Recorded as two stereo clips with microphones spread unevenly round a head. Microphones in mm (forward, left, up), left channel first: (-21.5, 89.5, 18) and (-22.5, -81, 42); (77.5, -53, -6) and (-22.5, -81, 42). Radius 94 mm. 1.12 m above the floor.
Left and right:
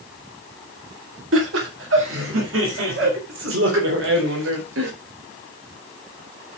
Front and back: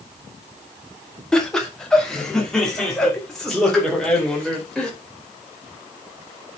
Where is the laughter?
65° right, 1.8 m; by 4.9 s 70° right, 4.5 m.